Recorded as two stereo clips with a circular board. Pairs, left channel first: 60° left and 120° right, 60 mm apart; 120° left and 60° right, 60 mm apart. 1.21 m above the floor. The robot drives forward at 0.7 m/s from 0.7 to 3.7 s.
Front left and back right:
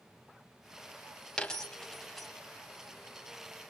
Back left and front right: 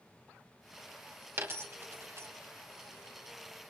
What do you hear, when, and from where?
1.4 s a dropped coin: 15° right, 1.6 m; by 2.3 s 30° right, 1.1 m